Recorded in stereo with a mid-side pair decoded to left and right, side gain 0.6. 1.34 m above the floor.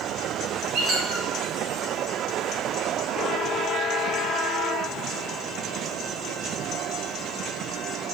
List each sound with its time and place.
0.7 s a squeak: 70° right, 1.3 m